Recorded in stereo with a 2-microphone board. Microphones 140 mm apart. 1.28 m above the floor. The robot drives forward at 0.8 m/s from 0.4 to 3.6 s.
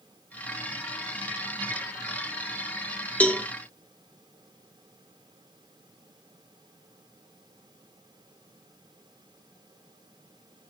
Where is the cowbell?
10° left (ahead or behind), 0.9 m.